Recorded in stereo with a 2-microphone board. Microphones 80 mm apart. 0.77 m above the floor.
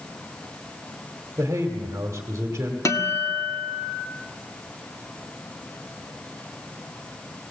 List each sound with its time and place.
1.4 s a man speaking: 35° right (ahead or behind), 2.0 m
2.9 s a guitar: 40° left (ahead or behind), 1.5 m